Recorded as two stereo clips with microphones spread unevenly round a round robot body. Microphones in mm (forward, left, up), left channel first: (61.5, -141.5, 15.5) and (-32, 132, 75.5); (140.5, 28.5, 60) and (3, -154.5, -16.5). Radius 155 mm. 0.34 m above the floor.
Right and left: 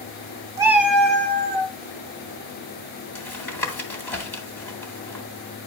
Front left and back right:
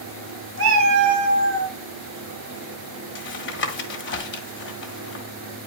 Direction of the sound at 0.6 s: 170° right.